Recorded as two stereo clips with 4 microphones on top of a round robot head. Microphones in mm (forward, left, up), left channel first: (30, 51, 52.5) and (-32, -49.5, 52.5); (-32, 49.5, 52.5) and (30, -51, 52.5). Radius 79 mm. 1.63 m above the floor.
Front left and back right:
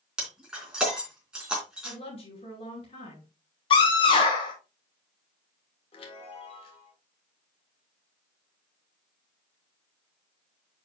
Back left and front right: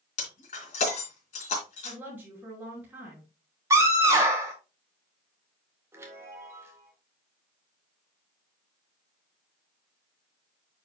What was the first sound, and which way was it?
Breaking glass, 155° left.